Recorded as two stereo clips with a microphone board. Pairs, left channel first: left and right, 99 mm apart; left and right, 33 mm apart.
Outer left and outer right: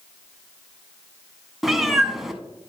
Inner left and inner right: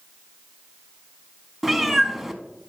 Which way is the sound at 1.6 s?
5° right (ahead or behind).